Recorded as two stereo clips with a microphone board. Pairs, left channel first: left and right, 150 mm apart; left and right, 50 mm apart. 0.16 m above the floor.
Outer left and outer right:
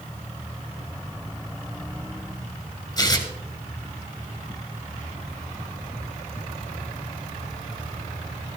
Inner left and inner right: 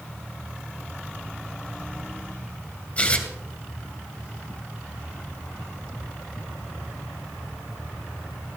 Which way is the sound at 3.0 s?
30° left (ahead or behind).